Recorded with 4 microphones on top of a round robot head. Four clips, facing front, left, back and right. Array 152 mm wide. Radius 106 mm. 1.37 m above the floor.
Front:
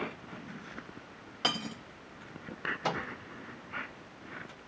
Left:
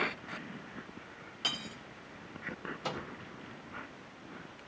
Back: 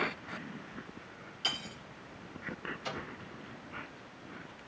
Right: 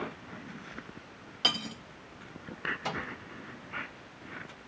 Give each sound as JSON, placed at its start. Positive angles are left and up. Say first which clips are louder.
{"t": 1.4, "sound": "cutlery clinking", "louder": "right 7 dB, front 7 dB", "azimuth_deg": -15, "distance_m": 1.3}
{"t": 2.8, "sound": "a microwave", "louder": "right 1 dB, front 8 dB", "azimuth_deg": 5, "distance_m": 1.7}